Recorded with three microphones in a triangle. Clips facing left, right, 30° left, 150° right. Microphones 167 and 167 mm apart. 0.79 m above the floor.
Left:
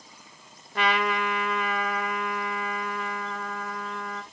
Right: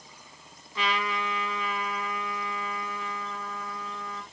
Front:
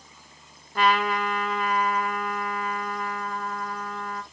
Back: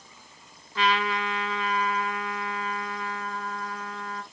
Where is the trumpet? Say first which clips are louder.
Left 5 dB, front 3 dB; 65° left, 1.3 m.